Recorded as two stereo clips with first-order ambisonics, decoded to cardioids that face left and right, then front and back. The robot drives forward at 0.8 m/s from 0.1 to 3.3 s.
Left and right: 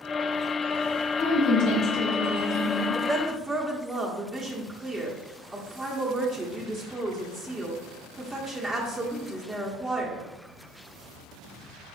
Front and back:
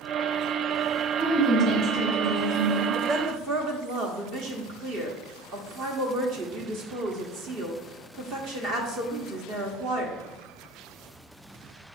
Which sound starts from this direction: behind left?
A woman speaking, at 1.2 s.